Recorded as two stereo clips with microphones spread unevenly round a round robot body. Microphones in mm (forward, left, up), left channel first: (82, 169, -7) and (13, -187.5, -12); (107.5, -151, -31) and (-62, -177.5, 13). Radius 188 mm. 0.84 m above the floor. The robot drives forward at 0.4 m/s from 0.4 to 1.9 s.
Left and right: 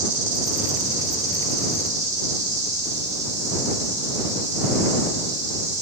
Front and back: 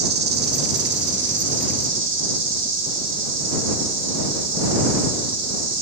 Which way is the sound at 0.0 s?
165° right.